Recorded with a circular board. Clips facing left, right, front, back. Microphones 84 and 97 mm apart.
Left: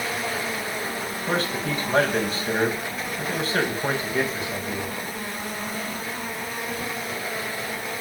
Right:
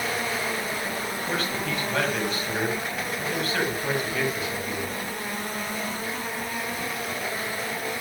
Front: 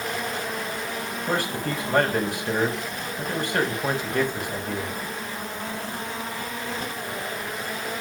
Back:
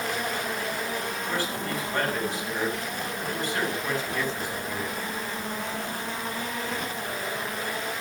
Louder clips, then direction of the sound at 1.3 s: Left 5 dB, front 6 dB; 30° left.